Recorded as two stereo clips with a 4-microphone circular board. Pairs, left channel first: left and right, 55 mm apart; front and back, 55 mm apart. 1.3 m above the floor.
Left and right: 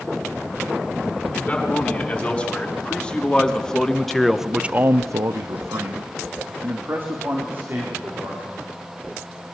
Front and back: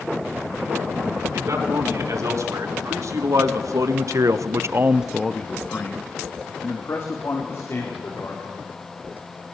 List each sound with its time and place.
1.3 s a man speaking: 155° left, 5 m; by 8.6 s 35° right, 5 m